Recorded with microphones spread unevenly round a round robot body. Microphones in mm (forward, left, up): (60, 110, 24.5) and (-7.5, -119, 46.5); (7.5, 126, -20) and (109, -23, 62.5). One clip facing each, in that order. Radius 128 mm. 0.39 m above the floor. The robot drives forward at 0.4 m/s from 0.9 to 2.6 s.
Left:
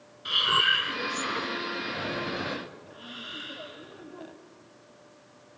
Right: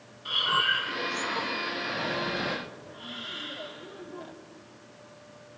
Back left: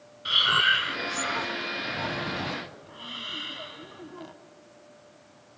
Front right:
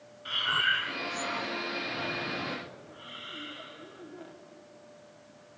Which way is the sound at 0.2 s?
135° left.